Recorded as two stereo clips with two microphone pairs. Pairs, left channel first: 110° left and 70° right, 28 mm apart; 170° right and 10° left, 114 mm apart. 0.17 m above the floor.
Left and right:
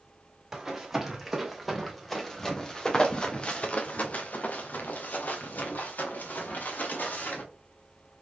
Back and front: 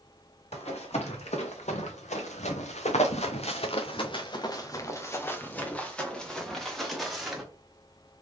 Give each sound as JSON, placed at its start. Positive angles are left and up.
{"t": 0.5, "sound": "running footsteps", "azimuth_deg": -150, "distance_m": 2.0}